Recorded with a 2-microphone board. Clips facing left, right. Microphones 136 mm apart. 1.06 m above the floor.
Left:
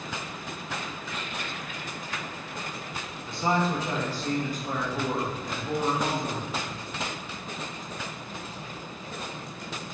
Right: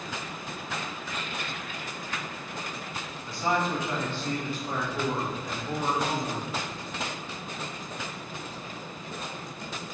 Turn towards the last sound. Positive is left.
turn(degrees=50)  # may be behind; listen again after turning